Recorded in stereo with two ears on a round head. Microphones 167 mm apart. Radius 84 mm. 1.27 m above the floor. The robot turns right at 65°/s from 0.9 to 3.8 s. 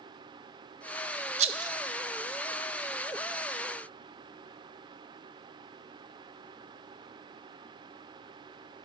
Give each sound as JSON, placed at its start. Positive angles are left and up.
{"t": 1.4, "sound": "a rattle", "side_deg": -35, "distance_m": 0.7}